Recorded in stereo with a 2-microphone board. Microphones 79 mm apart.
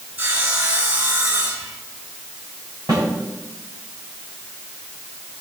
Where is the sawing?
30° right (ahead or behind), 4.5 m.